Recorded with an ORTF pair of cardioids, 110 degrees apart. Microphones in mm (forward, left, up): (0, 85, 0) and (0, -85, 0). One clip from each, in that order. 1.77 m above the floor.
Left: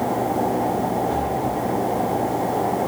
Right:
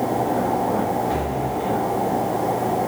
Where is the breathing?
30° right, 1.1 m.